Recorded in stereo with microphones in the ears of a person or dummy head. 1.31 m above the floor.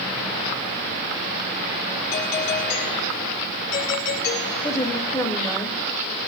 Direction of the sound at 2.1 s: 50° left (ahead or behind).